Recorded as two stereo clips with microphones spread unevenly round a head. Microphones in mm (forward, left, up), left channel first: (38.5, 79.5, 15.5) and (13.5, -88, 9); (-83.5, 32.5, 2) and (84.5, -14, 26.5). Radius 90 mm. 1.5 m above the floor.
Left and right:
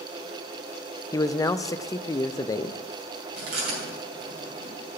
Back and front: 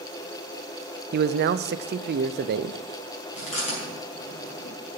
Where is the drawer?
I don't hear a drawer.